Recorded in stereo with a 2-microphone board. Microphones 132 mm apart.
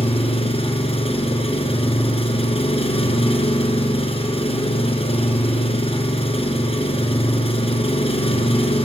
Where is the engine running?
50° left (ahead or behind), 2.5 m.